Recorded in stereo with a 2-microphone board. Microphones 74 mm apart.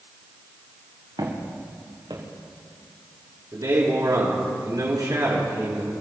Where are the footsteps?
80° right, 4 m; by 2.2 s 75° right (ahead or behind), 4 m.